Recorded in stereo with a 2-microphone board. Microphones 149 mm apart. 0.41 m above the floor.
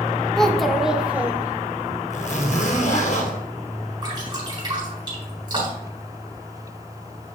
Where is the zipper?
50° left (ahead or behind), 1.7 m.